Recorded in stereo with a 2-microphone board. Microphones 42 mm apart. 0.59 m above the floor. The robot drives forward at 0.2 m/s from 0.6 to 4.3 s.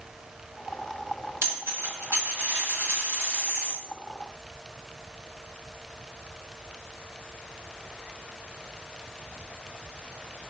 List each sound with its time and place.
1.4 s a dropped coin: 80° right, 1.4 m; by 3.8 s 60° right (ahead or behind), 1.6 m